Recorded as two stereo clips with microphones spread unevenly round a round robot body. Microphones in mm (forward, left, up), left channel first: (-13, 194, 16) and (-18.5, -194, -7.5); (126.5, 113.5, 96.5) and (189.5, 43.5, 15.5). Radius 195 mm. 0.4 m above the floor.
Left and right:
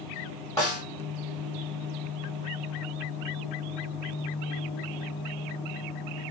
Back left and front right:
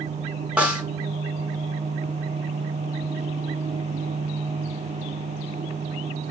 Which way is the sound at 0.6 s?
5° left.